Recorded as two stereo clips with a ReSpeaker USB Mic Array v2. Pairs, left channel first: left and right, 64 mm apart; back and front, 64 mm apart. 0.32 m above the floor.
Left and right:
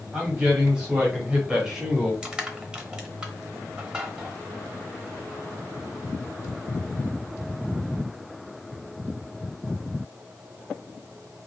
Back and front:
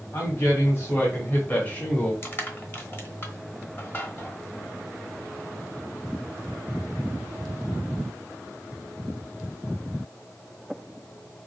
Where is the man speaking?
160° right, 1.8 m; by 2.1 s 165° right, 1.2 m.